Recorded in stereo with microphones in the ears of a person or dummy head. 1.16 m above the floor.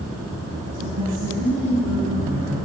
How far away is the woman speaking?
About 9 m.